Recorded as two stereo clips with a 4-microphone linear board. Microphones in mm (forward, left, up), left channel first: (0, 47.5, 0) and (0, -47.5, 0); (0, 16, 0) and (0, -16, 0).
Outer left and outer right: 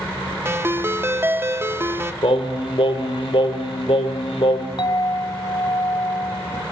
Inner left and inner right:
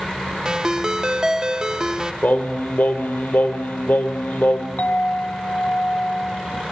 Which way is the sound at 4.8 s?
55° left (ahead or behind).